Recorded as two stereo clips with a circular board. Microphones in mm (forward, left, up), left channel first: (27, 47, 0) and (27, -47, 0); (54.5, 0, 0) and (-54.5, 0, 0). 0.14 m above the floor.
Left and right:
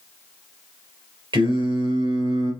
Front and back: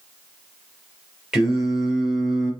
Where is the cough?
No cough in this recording.